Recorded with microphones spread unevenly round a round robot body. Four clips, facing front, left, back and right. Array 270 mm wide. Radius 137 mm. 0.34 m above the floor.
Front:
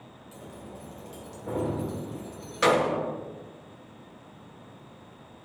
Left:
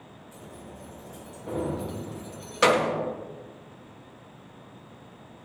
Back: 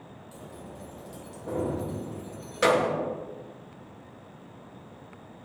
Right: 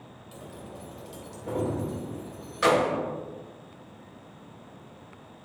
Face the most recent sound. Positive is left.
turn(degrees=105)